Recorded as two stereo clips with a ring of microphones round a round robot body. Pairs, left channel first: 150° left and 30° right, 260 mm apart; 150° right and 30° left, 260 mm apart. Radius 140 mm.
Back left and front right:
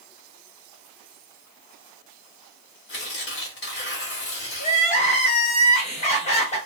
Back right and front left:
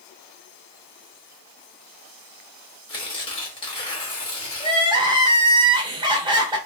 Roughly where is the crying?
Left.